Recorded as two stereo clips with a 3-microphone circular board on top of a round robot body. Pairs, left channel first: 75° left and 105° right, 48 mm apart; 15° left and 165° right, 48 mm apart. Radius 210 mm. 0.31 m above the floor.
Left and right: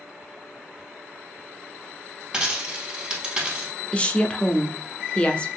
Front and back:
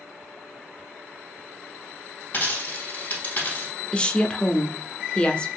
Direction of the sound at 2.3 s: 30° right.